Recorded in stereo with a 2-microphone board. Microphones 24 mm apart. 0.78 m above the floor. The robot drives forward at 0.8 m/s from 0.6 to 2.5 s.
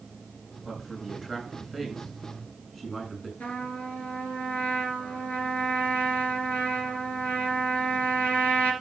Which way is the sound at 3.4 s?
75° left (ahead or behind).